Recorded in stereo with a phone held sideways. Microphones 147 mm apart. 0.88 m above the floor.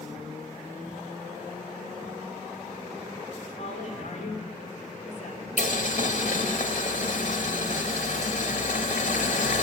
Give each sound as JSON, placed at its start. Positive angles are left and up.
{"t": 3.6, "sound": "a woman speaking", "side_deg": 50, "distance_m": 3.0}
{"t": 5.6, "sound": "boiling", "side_deg": 60, "distance_m": 1.7}